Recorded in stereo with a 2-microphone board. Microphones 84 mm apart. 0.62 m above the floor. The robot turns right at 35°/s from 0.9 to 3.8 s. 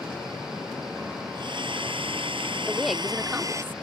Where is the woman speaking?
170° left; by 3.7 s 150° right.